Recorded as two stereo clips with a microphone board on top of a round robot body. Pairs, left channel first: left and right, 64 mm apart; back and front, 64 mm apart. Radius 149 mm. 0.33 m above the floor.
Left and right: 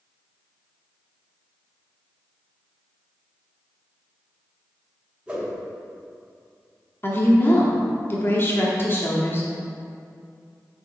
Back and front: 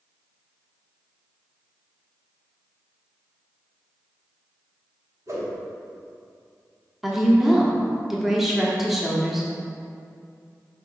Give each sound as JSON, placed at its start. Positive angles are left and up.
{"t": 5.3, "sound": "a whoosh", "azimuth_deg": -20, "distance_m": 2.5}
{"t": 7.0, "sound": "a woman speaking", "azimuth_deg": 85, "distance_m": 1.5}